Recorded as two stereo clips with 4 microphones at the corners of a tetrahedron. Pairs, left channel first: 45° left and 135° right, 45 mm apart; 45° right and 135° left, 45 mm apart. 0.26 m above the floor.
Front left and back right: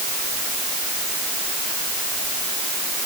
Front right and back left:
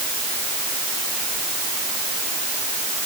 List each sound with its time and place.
Only background noise.